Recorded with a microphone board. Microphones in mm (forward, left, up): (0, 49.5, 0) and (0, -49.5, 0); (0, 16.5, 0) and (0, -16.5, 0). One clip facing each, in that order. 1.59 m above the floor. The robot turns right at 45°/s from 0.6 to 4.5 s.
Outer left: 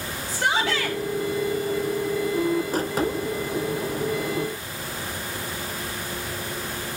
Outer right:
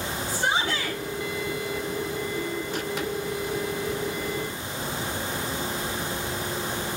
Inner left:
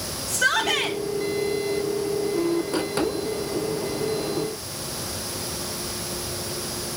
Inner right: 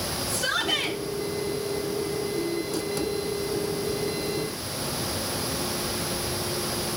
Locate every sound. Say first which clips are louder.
0.3 s a shout: outer left 3 dB, inner left 5 dB; 80° left, 3.5 m; by 1.0 s 60° left (ahead or behind), 3.5 m